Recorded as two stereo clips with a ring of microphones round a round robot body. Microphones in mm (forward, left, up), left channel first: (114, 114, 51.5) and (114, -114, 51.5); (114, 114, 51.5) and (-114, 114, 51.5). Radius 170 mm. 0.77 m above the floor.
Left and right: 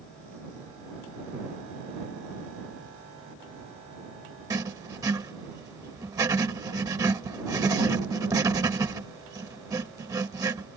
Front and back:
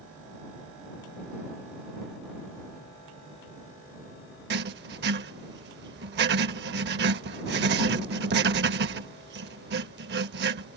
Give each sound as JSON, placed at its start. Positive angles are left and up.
{"t": 4.5, "sound": "writing", "azimuth_deg": -165}